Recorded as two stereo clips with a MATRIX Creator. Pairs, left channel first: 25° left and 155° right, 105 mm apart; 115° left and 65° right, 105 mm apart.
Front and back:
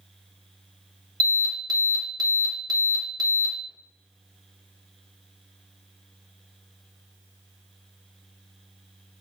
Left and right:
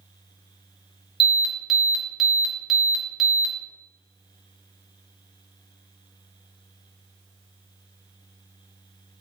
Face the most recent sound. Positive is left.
turn(degrees=-155)